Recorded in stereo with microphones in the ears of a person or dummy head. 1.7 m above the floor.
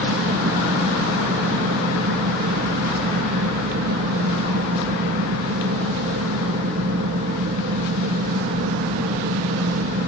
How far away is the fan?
About 1.8 m.